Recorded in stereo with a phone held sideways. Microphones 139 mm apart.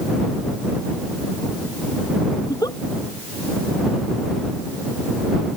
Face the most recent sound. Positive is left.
turn(degrees=25)  # may be behind; listen again after turning